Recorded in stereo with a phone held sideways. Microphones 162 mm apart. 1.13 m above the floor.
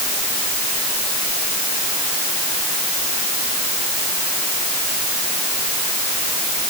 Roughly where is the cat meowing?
No cat meowing in this recording.